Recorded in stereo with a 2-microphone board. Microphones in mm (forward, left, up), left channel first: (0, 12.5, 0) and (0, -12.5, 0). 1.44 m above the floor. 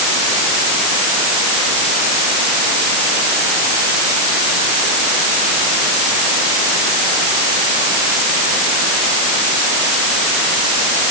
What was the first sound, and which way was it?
Only background noise.